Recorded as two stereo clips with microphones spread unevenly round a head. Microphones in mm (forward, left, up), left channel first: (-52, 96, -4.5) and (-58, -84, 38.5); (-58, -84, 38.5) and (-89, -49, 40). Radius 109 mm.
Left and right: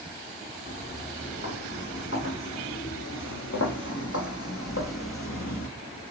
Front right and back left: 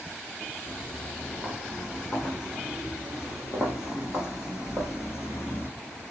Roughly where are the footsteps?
Ahead left.